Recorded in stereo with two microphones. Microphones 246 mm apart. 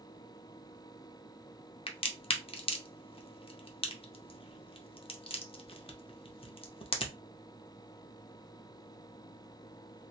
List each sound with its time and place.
1.9 s a crack: 25° left (ahead or behind), 0.5 m